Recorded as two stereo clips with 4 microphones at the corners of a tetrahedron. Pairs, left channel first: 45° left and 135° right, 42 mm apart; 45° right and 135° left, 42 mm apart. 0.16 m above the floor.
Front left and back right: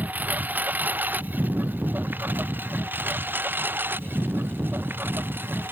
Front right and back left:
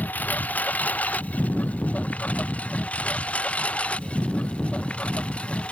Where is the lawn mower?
90° right; by 5.7 s 105° right.